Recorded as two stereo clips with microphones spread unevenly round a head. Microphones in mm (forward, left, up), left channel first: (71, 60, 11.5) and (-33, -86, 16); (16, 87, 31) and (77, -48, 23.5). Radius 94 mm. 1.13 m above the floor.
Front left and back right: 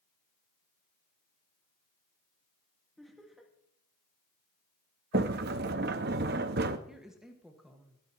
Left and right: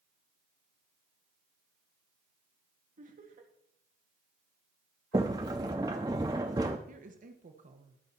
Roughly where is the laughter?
Ahead right.